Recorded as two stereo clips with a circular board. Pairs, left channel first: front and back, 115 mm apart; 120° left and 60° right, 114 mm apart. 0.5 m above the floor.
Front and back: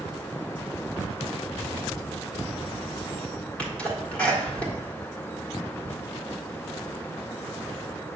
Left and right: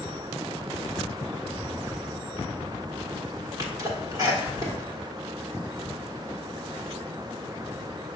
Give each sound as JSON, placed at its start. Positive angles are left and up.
{"t": 3.6, "sound": "a sneeze", "azimuth_deg": -70, "distance_m": 1.6}